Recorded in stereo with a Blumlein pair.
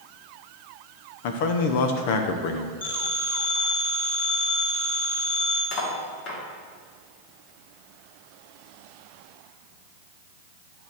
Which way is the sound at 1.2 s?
50° left.